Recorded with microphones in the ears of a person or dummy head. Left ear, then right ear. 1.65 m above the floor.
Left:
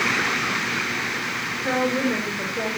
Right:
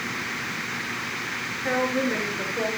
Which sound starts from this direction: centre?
A woman speaking, at 1.6 s.